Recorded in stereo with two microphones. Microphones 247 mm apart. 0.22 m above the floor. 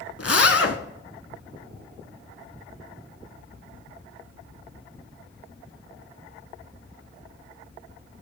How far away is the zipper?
About 1.0 m.